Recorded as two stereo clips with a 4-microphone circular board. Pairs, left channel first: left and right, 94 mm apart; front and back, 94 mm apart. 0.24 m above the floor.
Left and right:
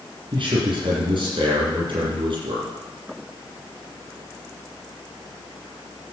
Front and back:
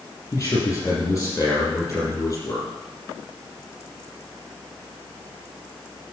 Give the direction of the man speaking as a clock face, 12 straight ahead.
2 o'clock.